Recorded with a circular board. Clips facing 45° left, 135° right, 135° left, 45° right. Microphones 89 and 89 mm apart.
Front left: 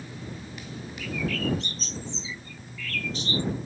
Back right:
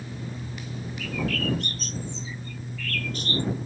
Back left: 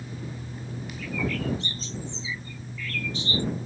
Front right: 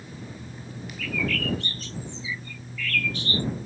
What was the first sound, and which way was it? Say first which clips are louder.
A bird: even, front right 1 dB; 160° right.